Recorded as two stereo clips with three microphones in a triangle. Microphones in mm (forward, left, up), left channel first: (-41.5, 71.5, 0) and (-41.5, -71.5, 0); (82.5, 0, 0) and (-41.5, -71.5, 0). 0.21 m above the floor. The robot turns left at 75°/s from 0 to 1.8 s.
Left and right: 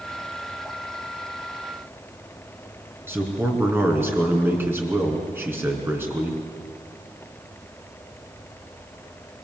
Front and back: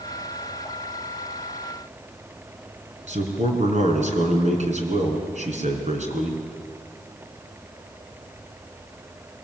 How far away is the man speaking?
About 3 m.